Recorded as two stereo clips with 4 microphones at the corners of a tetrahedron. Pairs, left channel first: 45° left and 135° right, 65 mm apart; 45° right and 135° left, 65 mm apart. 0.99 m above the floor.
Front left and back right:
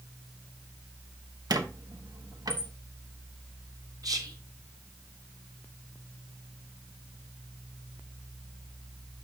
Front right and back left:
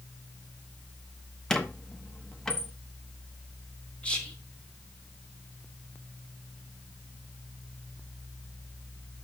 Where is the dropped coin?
I don't hear a dropped coin.